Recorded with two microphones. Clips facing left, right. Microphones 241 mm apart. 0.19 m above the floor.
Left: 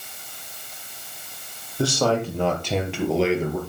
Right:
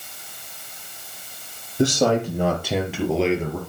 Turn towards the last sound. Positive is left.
turn(degrees=10)  # may be behind; listen again after turning